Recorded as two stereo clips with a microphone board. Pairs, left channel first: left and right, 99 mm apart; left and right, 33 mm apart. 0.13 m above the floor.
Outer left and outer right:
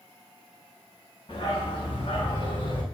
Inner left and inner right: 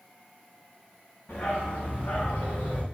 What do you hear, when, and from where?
1.3 s a dog barking: 55° left (ahead or behind), 5.5 m; by 2.8 s 50° left (ahead or behind), 4 m